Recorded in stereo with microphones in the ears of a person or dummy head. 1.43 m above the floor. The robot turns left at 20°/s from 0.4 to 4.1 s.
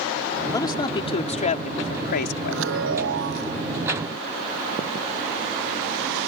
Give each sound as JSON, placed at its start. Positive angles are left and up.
{"t": 0.5, "sound": "a man speaking", "side_deg": 15}
{"t": 2.5, "sound": "a chime", "side_deg": -75}